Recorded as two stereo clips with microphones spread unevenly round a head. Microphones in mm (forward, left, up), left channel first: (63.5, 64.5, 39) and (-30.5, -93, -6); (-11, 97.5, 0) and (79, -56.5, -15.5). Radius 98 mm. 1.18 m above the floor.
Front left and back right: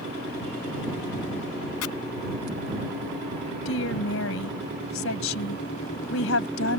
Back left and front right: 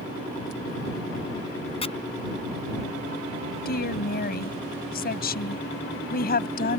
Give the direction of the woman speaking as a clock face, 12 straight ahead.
9 o'clock.